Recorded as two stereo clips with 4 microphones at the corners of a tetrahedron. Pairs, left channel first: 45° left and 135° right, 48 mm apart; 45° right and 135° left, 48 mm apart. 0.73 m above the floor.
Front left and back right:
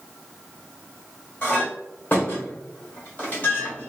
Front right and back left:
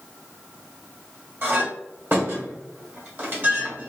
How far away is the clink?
About 1.4 m.